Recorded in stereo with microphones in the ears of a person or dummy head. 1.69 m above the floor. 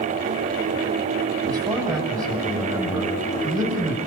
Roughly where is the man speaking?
Right.